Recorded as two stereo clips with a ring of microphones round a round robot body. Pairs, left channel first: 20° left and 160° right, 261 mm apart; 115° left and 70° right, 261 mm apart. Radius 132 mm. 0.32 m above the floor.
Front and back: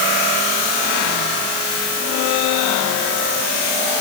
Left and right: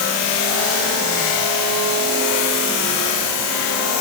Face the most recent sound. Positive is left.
No sound to turn to.